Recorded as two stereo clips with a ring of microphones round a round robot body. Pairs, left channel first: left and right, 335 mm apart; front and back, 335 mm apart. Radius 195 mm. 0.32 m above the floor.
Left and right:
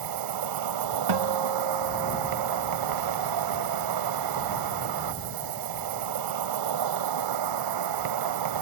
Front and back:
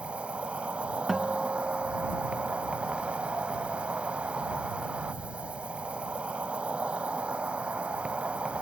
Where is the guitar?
90° right.